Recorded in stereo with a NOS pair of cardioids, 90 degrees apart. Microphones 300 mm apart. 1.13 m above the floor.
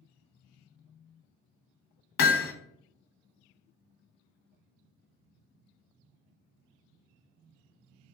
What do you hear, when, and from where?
2.2 s hammering: 45° left, 0.7 m